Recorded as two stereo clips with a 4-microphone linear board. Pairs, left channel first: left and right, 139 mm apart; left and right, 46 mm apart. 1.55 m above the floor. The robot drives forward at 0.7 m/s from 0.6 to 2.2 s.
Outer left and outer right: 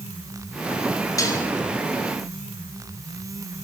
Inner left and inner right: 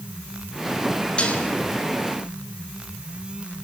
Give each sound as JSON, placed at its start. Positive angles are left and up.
{"t": 1.2, "sound": "dishes clattering", "side_deg": 25, "distance_m": 4.0}